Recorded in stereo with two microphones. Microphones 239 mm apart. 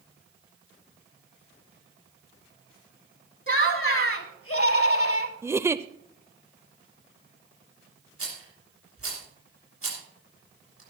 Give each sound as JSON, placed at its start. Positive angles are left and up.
{"t": 3.5, "sound": "laughter", "side_deg": 55, "distance_m": 2.0}
{"t": 5.4, "sound": "a giggle", "side_deg": -10, "distance_m": 0.5}
{"t": 8.2, "sound": "a rattle", "side_deg": -70, "distance_m": 7.0}